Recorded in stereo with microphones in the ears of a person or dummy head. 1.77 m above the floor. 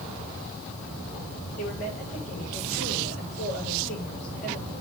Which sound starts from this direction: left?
A woman speaking, at 1.6 s.